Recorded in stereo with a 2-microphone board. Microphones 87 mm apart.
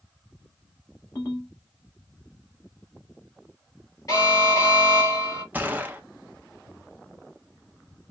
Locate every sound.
1.1 s a ringtone: 30° left (ahead or behind), 3 m
4.1 s an alarm: 35° left (ahead or behind), 3.5 m
5.5 s a gunshot: 20° right (ahead or behind), 0.7 m